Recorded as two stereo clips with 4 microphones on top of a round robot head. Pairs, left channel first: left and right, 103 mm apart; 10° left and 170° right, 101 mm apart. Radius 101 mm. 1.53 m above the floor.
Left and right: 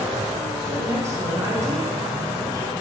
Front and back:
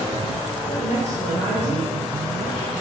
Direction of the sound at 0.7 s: 30° right.